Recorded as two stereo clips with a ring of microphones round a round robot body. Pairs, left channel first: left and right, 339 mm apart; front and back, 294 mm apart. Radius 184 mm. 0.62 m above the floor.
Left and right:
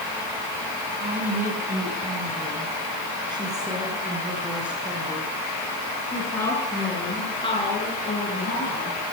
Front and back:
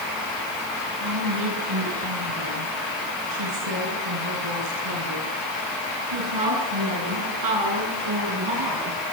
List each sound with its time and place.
1.0 s a woman speaking: 155° right, 9.5 m; by 9.0 s 160° left, 10 m